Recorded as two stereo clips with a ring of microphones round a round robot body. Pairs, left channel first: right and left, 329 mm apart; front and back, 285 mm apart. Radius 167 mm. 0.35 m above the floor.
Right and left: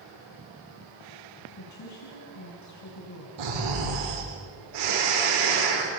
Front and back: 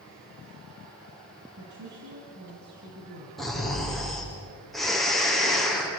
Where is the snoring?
90° left, 8.5 m.